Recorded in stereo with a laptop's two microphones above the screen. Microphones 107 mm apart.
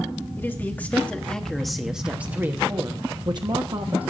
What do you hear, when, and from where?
0.4 s a man speaking: 20° left (ahead or behind), 1.6 m; by 4.1 s 60° right (ahead or behind), 1.3 m